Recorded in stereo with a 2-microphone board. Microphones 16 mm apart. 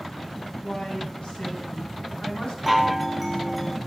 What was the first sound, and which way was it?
A woman speaking, 85° left.